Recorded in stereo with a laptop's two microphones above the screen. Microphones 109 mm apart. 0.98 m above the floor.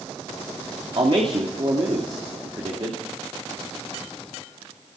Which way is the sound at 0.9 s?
50° right (ahead or behind).